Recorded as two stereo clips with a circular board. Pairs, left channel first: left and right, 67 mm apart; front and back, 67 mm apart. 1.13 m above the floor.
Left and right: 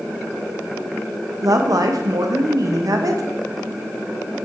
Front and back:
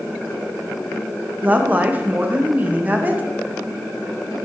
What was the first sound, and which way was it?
A woman speaking, 115° right.